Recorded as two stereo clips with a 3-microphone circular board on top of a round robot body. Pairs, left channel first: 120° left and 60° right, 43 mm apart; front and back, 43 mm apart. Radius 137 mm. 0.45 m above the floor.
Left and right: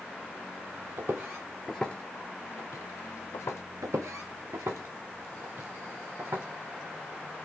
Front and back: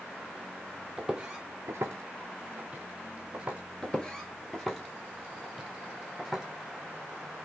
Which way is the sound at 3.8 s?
70° right.